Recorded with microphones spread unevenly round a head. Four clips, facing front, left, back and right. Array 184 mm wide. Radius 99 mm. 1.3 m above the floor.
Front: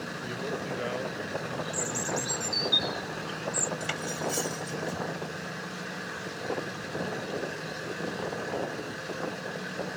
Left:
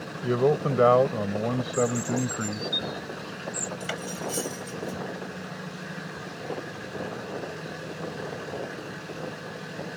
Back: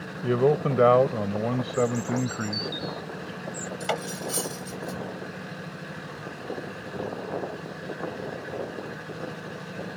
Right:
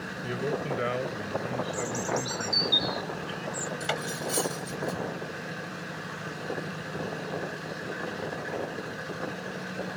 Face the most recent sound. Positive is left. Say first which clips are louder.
# right 2 dB, back 3 dB
turn(degrees=-175)